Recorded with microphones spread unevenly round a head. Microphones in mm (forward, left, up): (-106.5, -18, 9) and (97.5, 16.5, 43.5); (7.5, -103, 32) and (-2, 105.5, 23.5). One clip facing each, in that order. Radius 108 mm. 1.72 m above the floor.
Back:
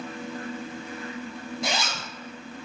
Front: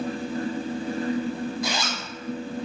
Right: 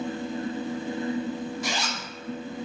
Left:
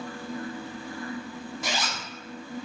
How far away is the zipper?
About 0.9 m.